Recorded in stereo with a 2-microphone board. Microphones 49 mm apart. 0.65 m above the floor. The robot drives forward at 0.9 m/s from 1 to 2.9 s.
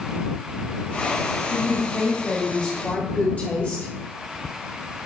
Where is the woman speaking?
15° left (ahead or behind), 2.5 m; by 3.9 s 25° left (ahead or behind), 1.4 m.